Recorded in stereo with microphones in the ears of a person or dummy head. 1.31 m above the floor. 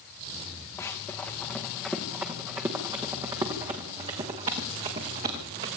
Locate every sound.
0.8 s running footsteps: 5° left (ahead or behind), 4.5 m; by 5.7 s 45° right (ahead or behind), 6 m